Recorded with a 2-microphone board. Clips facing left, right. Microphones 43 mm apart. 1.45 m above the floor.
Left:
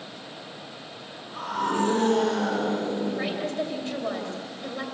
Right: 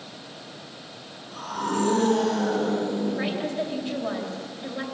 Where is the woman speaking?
10° right (ahead or behind), 3 m.